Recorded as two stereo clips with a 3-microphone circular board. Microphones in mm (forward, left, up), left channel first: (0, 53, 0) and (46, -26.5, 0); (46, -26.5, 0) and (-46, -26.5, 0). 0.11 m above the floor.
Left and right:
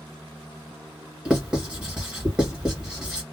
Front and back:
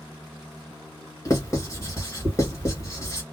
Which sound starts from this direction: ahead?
Writing, at 1.2 s.